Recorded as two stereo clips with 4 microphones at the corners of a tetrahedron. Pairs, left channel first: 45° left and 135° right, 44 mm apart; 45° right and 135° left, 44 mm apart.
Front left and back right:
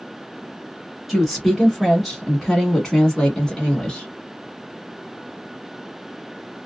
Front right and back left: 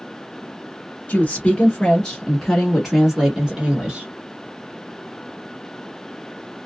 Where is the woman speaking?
40° right, 1.4 m; by 4.1 s 95° left, 1.6 m.